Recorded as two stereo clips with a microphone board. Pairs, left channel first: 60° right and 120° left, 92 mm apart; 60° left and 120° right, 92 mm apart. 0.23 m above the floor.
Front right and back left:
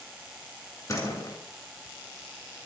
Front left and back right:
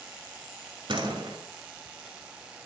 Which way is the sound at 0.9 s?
110° right.